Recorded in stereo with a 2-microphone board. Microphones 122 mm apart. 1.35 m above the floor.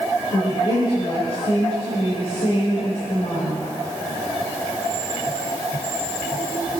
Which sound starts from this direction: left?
A woman speaking, at 0.3 s.